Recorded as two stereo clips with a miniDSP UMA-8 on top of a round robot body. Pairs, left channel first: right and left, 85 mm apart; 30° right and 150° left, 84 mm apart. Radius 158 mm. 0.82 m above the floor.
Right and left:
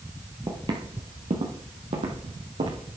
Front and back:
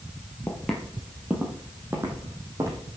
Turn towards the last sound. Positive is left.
turn(degrees=95)